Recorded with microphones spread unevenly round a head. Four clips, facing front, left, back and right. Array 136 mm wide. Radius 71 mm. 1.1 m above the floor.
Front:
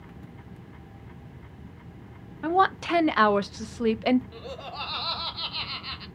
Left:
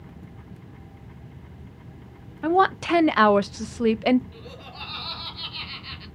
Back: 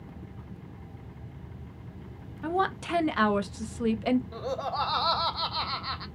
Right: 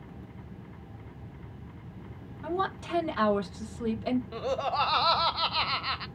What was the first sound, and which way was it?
A woman speaking, 70° left.